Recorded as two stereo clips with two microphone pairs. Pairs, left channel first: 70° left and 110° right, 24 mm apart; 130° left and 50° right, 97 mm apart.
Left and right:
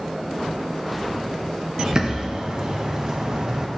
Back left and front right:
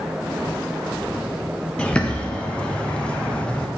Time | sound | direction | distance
1.8 | a bird | 155° right | 0.7 m